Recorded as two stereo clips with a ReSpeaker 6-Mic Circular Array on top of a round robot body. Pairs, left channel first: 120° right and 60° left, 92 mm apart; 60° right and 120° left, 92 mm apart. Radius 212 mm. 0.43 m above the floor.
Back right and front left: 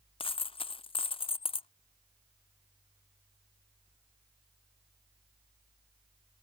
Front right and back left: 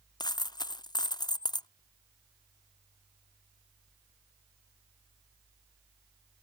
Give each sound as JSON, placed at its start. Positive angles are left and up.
{"t": 0.2, "sound": "a dropped coin", "azimuth_deg": -100}